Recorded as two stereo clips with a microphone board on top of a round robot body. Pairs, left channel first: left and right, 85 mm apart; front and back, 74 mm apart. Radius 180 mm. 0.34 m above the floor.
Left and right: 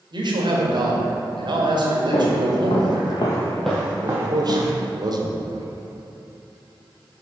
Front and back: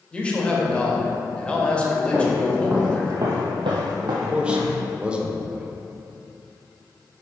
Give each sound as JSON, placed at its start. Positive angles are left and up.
{"t": 0.1, "sound": "a man speaking", "azimuth_deg": -75, "distance_m": 1.7}
{"t": 2.1, "sound": "footsteps", "azimuth_deg": 85, "distance_m": 1.3}
{"t": 4.0, "sound": "a man speaking", "azimuth_deg": -105, "distance_m": 1.3}